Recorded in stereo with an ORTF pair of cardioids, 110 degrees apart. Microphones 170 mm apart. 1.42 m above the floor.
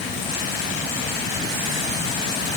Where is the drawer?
I don't hear a drawer.